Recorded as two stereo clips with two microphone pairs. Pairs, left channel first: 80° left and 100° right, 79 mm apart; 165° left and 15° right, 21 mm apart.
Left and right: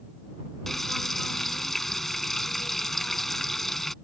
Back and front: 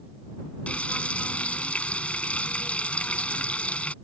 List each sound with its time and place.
0.7 s frying: 165° left